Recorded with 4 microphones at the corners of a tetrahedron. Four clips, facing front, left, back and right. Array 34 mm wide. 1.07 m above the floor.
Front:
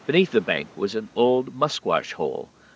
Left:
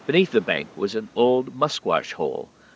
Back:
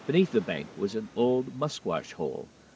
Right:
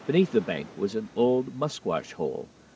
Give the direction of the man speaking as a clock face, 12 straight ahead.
11 o'clock.